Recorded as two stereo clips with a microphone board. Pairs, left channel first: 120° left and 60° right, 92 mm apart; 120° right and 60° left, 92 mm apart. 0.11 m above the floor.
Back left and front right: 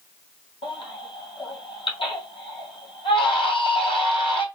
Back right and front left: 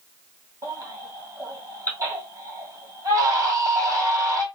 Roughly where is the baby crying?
Behind left.